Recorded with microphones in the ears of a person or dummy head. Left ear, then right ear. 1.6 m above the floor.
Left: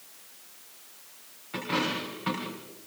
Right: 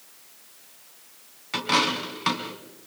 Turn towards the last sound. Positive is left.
turn(degrees=-65)  # may be behind; listen again after turning